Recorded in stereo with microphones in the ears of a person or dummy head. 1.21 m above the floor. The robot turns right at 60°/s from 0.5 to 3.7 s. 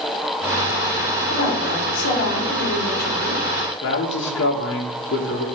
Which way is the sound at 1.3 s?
25° left.